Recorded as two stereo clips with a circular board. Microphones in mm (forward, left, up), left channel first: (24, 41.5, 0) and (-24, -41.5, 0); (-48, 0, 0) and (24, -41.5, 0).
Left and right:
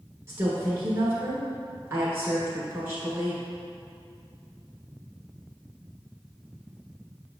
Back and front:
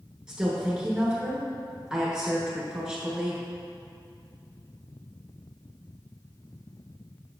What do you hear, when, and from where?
0.3 s a woman speaking: 100° right, 1.1 m